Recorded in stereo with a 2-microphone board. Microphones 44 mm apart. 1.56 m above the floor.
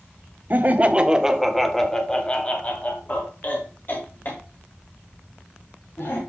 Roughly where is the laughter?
Right.